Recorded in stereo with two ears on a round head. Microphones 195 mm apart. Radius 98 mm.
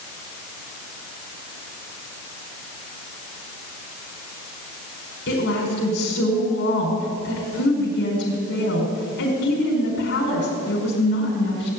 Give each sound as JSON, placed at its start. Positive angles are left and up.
{"t": 5.3, "sound": "a woman speaking", "side_deg": 50, "distance_m": 5.0}